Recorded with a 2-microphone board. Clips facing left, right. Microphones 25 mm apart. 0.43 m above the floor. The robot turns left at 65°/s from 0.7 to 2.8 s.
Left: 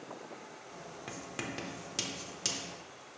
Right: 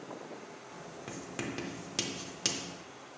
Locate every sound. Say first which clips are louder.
1.1 s writing: right 1 dB; 10° left (ahead or behind), 0.7 m; by 2.7 s 20° right (ahead or behind), 0.7 m